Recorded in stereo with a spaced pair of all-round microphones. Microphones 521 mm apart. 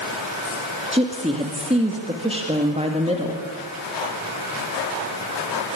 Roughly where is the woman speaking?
Centre.